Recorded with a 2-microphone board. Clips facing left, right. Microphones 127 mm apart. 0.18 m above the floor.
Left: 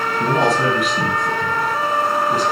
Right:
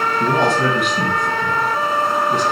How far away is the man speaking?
About 2 m.